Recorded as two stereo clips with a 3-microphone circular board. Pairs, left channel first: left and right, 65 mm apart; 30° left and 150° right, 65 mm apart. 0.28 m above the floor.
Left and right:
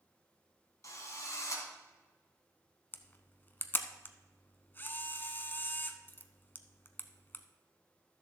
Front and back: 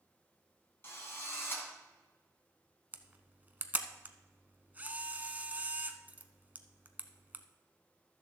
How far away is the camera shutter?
About 0.8 m.